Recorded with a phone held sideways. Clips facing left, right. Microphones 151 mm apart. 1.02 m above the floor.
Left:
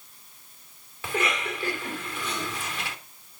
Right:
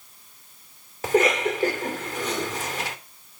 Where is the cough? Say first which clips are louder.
Right 9 dB; 40° right (ahead or behind), 3 m.